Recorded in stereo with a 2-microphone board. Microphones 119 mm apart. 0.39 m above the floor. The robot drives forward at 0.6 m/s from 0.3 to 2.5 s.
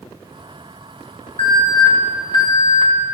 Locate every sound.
1.4 s an alarm: 45° left (ahead or behind), 2.5 m; by 2.9 s 40° left (ahead or behind), 3 m